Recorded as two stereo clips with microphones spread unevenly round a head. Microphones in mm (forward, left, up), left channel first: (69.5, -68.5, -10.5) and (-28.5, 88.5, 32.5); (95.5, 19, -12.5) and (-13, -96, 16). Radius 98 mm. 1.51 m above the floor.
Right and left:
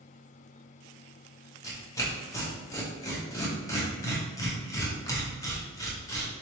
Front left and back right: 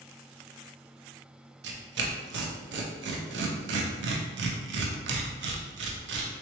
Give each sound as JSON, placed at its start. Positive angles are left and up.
{"t": 1.6, "sound": "tearing paper", "azimuth_deg": -135, "distance_m": 0.7}